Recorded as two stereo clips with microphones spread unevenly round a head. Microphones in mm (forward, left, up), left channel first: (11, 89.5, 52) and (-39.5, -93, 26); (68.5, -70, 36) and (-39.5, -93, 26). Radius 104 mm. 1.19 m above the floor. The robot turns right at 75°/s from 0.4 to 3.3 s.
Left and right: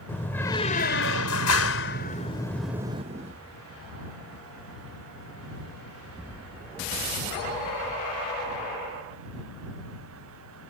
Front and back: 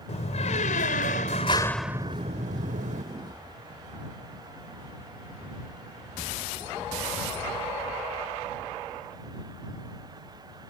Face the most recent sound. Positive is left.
turn(degrees=-145)